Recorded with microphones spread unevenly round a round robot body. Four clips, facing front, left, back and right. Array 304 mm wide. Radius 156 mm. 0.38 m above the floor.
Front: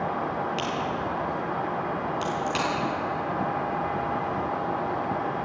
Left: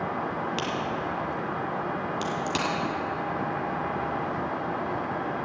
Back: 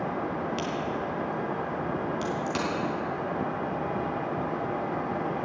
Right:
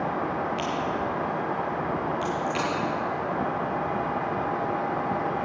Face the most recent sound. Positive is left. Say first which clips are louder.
# right 2 dB, front 2 dB
turn(degrees=130)